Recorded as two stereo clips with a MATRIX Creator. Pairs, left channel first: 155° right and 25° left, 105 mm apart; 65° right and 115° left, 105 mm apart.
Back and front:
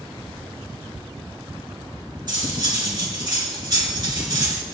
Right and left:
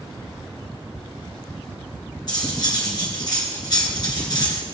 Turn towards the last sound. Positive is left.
turn(degrees=-25)